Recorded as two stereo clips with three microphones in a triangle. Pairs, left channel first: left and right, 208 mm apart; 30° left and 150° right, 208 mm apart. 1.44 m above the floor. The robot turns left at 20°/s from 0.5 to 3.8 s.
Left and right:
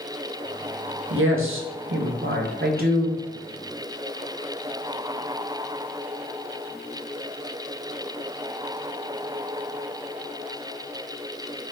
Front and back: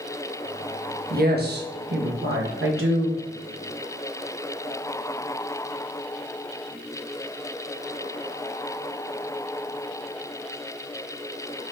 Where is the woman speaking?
100° right, 0.7 m; by 3.2 s 145° right, 0.7 m.